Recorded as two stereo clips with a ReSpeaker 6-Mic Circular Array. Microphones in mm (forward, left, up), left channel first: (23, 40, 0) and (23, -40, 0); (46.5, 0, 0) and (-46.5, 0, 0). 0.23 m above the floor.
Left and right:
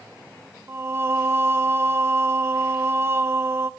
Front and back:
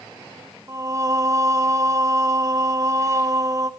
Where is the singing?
135° right, 0.7 m.